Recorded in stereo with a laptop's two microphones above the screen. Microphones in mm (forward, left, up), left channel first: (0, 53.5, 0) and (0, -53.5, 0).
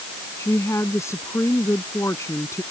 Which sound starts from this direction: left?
A woman speaking, at 0.4 s.